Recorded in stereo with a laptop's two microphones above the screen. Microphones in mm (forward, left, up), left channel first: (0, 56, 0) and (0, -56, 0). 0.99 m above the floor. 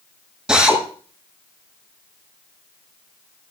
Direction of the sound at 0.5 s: 5° right (ahead or behind).